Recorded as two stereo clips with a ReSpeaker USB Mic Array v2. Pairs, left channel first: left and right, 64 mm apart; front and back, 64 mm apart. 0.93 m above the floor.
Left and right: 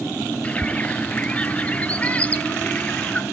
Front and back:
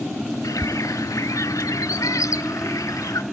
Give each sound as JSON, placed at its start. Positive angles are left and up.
{"t": 0.4, "sound": "a bird", "azimuth_deg": 20, "distance_m": 0.6}